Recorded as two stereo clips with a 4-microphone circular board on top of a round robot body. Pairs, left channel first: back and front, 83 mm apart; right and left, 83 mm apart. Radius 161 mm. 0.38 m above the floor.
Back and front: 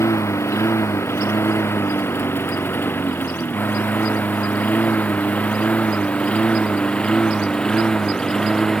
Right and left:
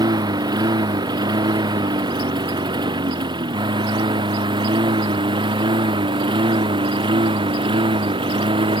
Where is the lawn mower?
125° left; by 8.8 s 100° left.